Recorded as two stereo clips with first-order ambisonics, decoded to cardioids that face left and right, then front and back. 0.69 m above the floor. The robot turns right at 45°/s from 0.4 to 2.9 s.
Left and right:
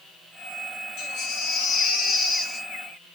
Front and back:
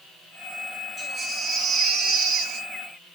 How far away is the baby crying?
About 1.4 m.